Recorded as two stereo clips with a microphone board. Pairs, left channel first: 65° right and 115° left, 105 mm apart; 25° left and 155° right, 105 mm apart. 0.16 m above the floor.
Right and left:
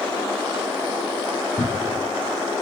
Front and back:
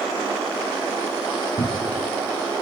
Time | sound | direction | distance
1.6 | a cupboard door | 45° left | 2.5 m